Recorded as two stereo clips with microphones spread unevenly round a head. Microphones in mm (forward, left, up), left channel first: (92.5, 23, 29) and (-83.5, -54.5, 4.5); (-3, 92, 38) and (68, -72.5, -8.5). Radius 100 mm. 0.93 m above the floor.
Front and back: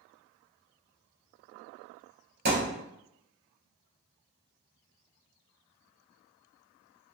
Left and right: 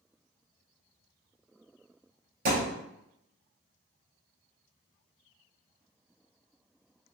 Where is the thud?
120° right, 1.5 m.